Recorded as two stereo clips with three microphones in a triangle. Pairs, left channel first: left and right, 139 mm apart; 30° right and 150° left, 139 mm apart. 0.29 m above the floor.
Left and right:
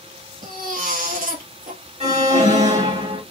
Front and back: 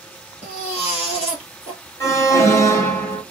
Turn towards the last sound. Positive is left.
turn(degrees=-90)